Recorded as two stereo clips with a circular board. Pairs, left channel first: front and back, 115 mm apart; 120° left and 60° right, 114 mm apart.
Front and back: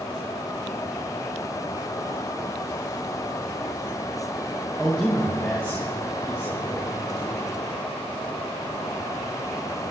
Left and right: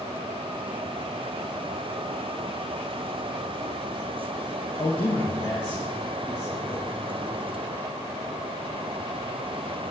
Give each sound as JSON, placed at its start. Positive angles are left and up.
{"t": 4.8, "sound": "a man speaking", "azimuth_deg": 90, "distance_m": 1.5}